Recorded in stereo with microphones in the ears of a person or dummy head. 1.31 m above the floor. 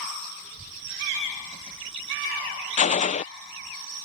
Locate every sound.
0.4 s a child speaking: 20° right (ahead or behind); by 3.8 s 15° right (ahead or behind)
2.8 s a gunshot: 35° left (ahead or behind)